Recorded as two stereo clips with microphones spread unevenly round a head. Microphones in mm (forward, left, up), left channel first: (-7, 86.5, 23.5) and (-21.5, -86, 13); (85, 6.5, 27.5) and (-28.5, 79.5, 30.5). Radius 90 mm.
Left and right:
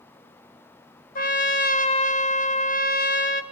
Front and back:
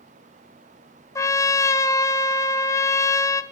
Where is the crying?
I don't hear crying.